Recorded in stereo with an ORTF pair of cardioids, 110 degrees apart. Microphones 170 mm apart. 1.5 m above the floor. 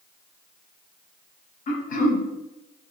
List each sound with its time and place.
1.7 s throat clearing: 60° left, 0.7 m